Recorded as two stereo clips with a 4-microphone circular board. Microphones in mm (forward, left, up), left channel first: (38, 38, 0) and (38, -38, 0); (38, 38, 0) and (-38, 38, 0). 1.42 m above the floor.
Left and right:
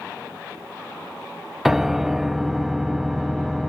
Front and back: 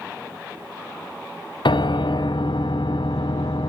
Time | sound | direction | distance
1.6 | a piano | 5° right | 0.7 m